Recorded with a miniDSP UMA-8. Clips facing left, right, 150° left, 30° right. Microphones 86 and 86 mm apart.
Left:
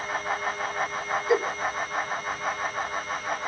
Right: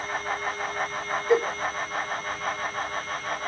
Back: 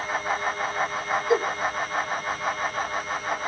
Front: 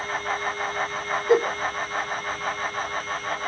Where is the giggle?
10° left, 0.5 m.